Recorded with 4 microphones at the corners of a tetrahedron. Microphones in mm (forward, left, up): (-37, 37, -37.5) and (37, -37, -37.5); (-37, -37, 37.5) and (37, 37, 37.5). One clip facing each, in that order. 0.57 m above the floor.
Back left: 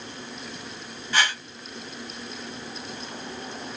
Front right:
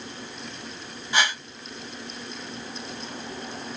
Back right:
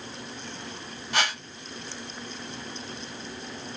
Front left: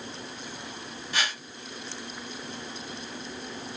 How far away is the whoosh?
About 0.7 m.